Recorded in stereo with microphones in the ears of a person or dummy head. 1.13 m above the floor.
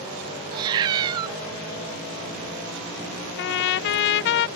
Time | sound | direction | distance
0.5 | a cat meowing | 25° right (ahead or behind) | ?
3.4 | a trumpet | 60° left (ahead or behind) | ?